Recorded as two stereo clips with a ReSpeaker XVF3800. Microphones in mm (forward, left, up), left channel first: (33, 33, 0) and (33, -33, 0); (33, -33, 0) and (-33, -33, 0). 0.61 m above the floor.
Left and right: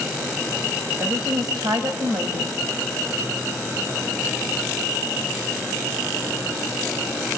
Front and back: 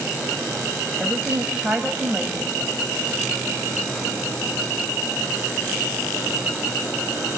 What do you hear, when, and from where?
1.0 s a woman speaking: 105° right, 3.5 m